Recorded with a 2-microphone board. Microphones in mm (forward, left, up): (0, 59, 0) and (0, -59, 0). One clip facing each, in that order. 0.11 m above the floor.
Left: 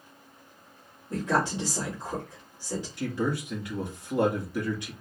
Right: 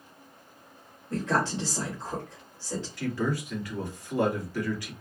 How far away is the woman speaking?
About 2.5 m.